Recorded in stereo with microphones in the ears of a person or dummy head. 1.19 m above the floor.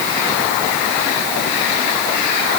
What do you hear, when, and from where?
Only background noise.